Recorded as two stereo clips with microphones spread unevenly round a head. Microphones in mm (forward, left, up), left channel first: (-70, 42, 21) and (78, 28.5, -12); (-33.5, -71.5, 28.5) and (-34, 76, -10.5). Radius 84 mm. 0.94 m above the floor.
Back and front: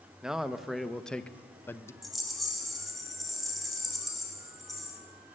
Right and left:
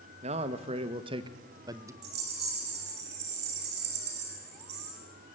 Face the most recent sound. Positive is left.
turn(degrees=85)